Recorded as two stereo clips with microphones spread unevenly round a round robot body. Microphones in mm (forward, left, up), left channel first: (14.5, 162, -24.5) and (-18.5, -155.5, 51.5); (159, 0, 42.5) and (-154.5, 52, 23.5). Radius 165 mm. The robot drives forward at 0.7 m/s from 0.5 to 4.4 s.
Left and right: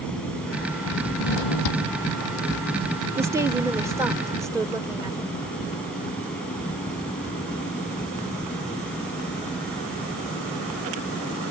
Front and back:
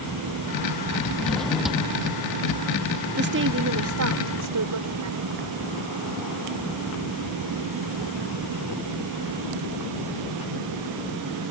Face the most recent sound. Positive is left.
turn(degrees=175)